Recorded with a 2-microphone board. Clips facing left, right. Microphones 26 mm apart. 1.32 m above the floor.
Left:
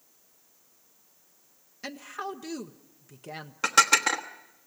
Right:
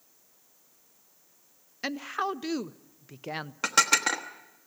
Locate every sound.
1.8 s a woman speaking: 30° right (ahead or behind), 0.5 m
3.6 s dishes clattering: 5° right (ahead or behind), 1.2 m